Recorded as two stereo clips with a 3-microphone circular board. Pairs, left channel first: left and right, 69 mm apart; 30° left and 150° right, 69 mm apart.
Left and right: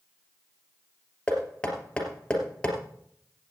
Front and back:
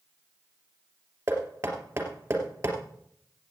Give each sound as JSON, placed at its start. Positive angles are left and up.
{"t": 1.3, "sound": "knocking", "azimuth_deg": 165, "distance_m": 2.5}